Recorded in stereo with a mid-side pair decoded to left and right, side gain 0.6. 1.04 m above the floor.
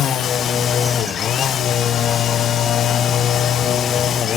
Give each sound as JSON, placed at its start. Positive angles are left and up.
{"t": 0.0, "sound": "a machine running", "azimuth_deg": 45, "distance_m": 0.8}